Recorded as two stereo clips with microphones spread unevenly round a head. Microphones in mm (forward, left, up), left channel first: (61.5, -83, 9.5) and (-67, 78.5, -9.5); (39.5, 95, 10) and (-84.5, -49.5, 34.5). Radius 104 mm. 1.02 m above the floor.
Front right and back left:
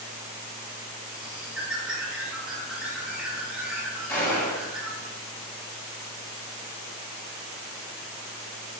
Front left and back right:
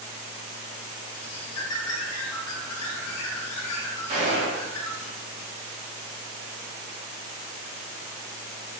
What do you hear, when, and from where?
1.1 s a bird: 40° left, 0.6 m
4.1 s a gunshot: 120° right, 1.0 m